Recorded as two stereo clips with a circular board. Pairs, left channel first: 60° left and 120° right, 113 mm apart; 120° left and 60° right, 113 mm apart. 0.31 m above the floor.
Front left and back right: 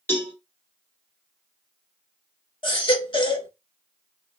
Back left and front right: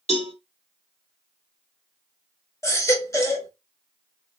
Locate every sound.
0.1 s a cowbell: 130° left, 1.1 m
2.6 s a baby crying: 70° left, 0.7 m